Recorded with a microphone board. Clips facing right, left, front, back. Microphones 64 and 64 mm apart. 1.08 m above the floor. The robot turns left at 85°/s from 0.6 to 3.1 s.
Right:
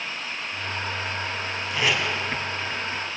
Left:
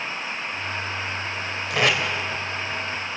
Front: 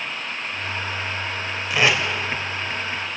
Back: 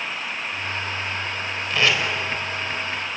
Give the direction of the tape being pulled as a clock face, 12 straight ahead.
9 o'clock.